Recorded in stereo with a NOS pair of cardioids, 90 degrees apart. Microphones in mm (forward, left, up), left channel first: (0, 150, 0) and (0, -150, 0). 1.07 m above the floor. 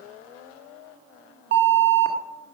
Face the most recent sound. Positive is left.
turn(degrees=-40)